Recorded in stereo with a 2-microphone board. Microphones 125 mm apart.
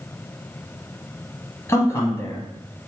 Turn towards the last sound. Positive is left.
turn(degrees=20)  # may be behind; listen again after turning